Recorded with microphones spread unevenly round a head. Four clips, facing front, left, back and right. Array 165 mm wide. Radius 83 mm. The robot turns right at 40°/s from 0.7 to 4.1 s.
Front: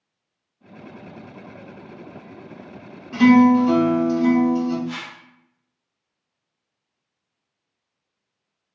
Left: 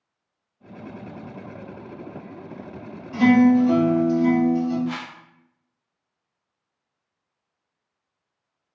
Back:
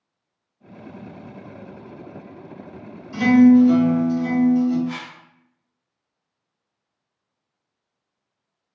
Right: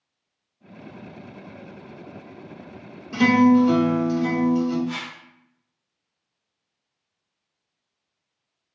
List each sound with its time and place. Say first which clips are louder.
3.1 s a guitar: left 1 dB, back 1 dB; 35° right, 1.6 m; by 4.8 s 5° left, 1.6 m
4.9 s a whoosh: left 1 dB, back 1 dB; 80° left, 0.6 m